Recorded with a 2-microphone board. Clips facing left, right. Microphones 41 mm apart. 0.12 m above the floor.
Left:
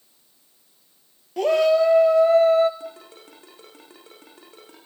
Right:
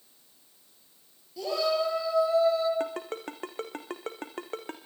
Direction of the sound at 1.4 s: 60° left (ahead or behind).